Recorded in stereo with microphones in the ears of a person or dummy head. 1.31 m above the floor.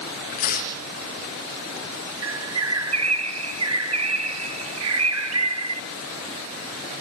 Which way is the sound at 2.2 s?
75° right (ahead or behind).